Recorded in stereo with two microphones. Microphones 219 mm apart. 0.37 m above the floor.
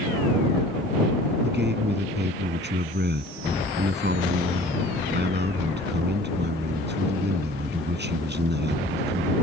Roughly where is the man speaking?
Right.